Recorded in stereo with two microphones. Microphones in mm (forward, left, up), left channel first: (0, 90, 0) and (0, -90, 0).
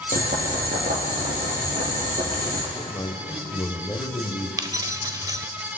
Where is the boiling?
60° right (ahead or behind), 3 m.